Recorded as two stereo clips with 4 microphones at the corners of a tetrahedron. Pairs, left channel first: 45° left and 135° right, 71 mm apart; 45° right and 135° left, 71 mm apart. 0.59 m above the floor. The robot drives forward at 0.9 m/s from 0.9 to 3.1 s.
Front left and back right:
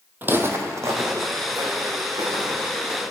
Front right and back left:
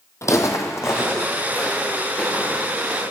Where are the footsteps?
80° right, 1.0 m; by 3.0 s 115° right, 5.5 m.